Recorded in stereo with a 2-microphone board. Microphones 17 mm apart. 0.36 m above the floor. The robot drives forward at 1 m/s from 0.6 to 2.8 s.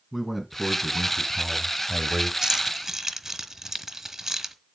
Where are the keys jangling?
30° right (ahead or behind), 1.0 m; by 4.5 s 25° right (ahead or behind), 1.3 m.